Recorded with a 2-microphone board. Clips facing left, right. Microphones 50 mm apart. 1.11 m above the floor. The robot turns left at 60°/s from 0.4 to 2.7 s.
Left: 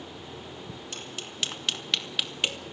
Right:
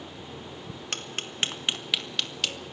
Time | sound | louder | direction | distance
0.9 | tapping | right 7 dB | 65° right (ahead or behind) | 1.9 m